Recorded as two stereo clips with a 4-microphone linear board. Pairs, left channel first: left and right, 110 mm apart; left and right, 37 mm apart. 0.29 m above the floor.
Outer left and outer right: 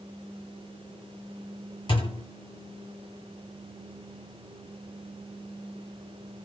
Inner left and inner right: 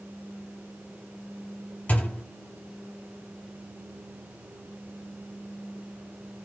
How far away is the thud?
About 0.9 m.